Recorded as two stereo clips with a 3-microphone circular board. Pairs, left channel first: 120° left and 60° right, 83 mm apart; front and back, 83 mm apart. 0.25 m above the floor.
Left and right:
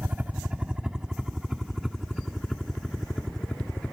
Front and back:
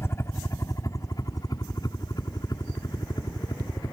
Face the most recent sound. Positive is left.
turn(degrees=40)